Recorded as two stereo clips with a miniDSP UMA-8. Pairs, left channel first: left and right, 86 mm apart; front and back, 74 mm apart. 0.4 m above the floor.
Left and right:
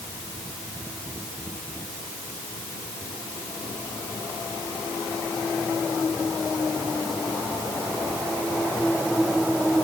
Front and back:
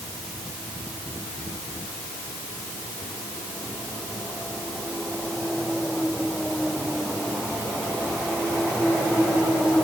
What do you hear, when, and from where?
Only background noise.